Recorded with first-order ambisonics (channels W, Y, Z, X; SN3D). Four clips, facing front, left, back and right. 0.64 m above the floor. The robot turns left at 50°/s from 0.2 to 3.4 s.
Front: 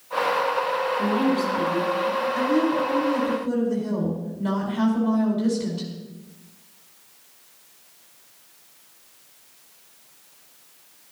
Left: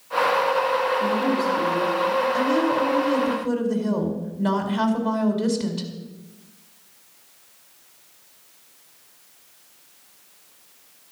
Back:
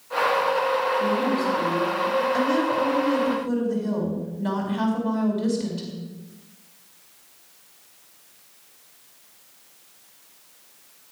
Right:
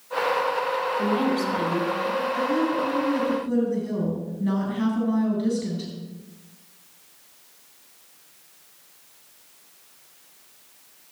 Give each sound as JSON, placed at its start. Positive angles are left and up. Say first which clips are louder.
{"t": 1.0, "sound": "a woman speaking", "louder": "left 1 dB, front 1 dB", "azimuth_deg": -55, "distance_m": 4.0}
{"t": 2.3, "sound": "a woman speaking", "louder": "left 3 dB, even", "azimuth_deg": 150, "distance_m": 4.0}